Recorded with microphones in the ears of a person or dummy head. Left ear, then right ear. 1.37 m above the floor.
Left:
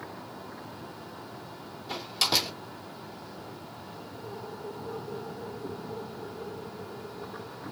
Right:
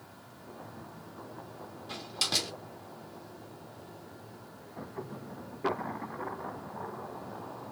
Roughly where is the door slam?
Centre.